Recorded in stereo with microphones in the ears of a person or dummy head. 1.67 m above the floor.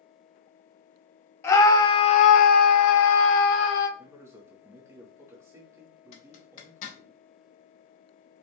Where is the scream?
10° left (ahead or behind), 0.8 m; by 3.9 s 65° left (ahead or behind), 0.9 m.